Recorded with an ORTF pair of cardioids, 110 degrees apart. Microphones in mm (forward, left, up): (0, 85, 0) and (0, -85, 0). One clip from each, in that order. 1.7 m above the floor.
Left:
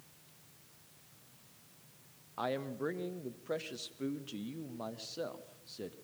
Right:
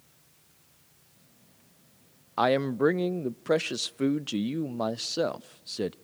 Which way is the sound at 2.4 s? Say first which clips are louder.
Right 13 dB; 60° right.